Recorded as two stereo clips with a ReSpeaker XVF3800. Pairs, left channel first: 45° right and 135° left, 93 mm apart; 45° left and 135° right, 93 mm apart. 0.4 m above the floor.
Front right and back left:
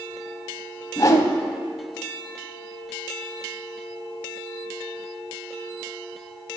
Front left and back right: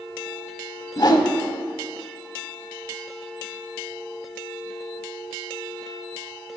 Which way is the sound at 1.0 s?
5° left.